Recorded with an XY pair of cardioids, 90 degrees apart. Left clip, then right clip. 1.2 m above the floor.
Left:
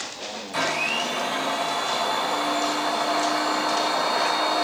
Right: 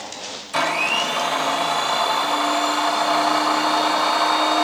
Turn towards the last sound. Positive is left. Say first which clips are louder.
# right 4 dB
turn(degrees=-60)